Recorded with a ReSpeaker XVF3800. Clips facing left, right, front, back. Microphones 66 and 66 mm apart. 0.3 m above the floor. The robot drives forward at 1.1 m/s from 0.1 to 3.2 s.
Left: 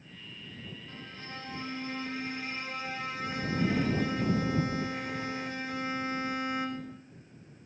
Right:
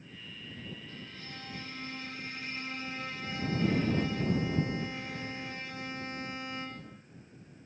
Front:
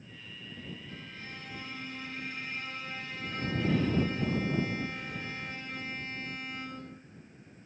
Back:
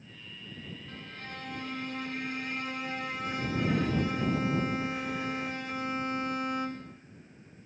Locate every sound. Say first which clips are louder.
0.9 s a violin: left 2 dB, back 2 dB; 145° left, 5 m; by 7.0 s 160° left, 7.5 m